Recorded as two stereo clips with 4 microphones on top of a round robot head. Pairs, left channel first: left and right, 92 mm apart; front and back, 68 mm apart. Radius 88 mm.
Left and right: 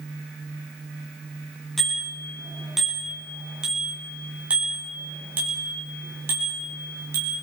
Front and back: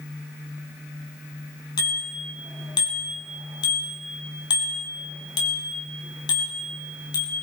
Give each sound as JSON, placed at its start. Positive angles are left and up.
{"t": 1.8, "sound": "a bicycle bell", "azimuth_deg": 0, "distance_m": 6.5}